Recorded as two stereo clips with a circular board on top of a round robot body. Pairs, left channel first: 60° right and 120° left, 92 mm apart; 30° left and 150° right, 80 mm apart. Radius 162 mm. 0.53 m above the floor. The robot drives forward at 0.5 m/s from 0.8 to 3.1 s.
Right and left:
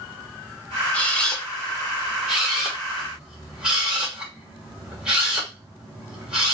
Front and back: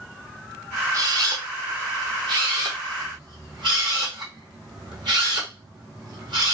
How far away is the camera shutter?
About 1.1 m.